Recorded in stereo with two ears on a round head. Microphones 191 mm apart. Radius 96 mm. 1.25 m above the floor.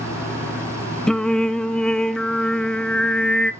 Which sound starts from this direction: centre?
Singing, at 1.1 s.